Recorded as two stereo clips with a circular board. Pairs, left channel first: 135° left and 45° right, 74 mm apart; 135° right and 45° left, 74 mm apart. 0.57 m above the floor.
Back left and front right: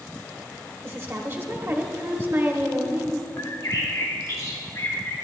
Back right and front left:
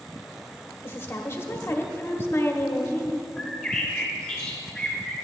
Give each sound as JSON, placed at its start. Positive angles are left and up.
{"t": 0.8, "sound": "a woman speaking", "azimuth_deg": -85, "distance_m": 1.0}
{"t": 3.4, "sound": "a bird", "azimuth_deg": 140, "distance_m": 2.0}